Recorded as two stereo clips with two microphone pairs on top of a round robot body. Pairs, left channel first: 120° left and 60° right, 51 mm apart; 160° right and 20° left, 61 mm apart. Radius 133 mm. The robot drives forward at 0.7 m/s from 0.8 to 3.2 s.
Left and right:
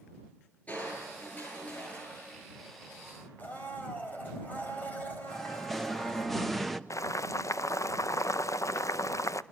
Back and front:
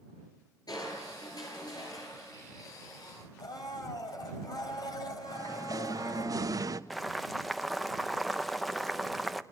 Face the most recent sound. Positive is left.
turn(degrees=110)